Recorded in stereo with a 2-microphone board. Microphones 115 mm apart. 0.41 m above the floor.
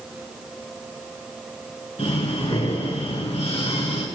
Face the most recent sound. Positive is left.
turn(degrees=60)  # may be behind; listen again after turning